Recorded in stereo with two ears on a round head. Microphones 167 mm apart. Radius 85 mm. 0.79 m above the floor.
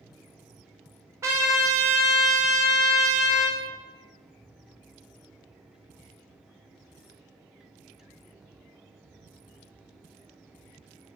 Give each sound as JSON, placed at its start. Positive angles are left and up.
{"t": 1.2, "sound": "a trumpet", "side_deg": -15, "distance_m": 0.6}